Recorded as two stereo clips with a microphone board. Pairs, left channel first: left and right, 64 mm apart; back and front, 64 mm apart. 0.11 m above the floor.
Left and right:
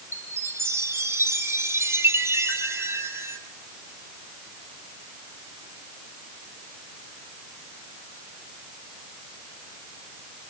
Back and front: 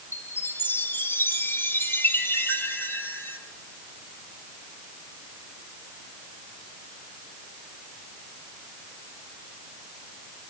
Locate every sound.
0.1 s a chime: 130° right, 3 m